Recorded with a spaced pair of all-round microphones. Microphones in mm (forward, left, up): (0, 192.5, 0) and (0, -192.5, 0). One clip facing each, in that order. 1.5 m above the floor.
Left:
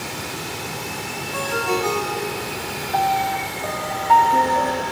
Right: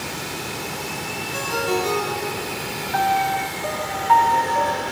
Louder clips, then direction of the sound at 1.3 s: Even; 75° left (ahead or behind).